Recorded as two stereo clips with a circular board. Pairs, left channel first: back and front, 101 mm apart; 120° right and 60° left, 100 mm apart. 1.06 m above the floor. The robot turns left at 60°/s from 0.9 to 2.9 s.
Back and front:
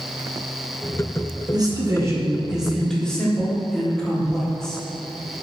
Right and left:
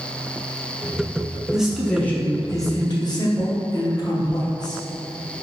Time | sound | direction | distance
1.5 | a man speaking | 20° right | 0.7 m